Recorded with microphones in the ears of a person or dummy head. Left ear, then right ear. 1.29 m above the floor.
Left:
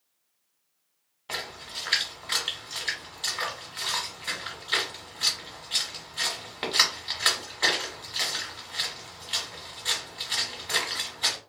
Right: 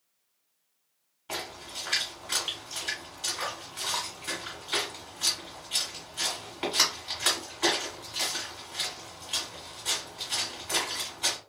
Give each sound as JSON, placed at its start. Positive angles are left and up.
{"t": 1.3, "sound": "a splash", "side_deg": 20, "distance_m": 1.4}